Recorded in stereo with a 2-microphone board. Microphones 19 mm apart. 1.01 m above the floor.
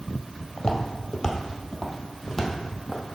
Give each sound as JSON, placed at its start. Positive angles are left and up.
{"t": 0.6, "sound": "footsteps", "side_deg": 40, "distance_m": 1.2}